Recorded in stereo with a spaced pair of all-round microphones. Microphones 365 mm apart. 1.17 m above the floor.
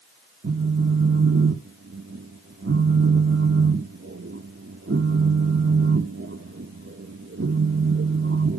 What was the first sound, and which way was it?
A phone buzzing, 35° right (ahead or behind).